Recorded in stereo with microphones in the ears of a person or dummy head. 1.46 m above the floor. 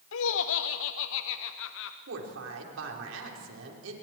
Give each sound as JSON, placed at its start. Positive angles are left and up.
{"t": 0.1, "sound": "laughter", "side_deg": 75, "distance_m": 0.8}
{"t": 2.1, "sound": "a woman speaking", "side_deg": -80, "distance_m": 4.0}